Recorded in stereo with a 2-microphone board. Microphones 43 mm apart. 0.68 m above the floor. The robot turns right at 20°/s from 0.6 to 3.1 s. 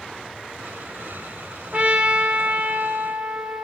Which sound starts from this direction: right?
A trumpet, at 1.7 s.